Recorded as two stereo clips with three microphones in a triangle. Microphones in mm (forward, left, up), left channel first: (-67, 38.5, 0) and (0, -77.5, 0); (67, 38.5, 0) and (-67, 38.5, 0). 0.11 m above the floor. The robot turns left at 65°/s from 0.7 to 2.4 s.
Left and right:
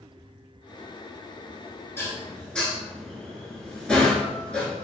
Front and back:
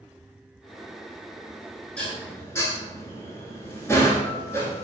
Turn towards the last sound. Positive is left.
turn(degrees=45)